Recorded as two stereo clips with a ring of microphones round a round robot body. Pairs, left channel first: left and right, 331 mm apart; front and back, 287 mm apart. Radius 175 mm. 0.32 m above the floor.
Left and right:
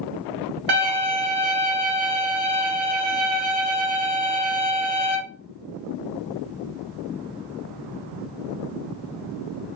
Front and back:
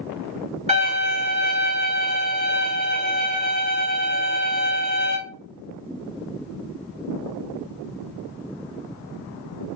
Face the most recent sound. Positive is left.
turn(degrees=-110)